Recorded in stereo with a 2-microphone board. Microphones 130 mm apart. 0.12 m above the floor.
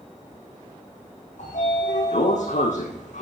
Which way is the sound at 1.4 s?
65° left (ahead or behind).